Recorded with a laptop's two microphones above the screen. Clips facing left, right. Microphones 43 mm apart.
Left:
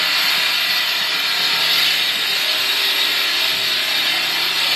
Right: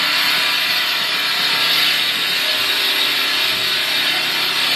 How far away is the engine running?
About 1.4 m.